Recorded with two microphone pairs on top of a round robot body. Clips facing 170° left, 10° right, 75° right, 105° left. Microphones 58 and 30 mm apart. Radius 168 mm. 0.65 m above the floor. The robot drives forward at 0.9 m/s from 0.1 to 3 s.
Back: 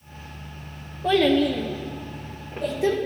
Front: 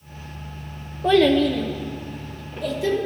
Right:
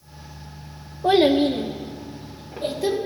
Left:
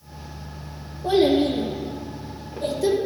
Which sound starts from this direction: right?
A child speaking, at 1.0 s.